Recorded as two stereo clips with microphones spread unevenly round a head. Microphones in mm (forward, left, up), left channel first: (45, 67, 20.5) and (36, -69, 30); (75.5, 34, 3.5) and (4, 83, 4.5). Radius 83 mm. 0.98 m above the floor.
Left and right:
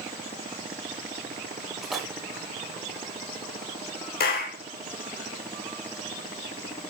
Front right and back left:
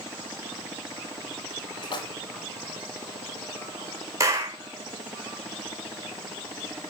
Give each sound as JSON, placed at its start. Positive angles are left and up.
{"t": 1.8, "sound": "a splash", "azimuth_deg": -5, "distance_m": 3.5}
{"t": 4.2, "sound": "a clap", "azimuth_deg": 90, "distance_m": 3.5}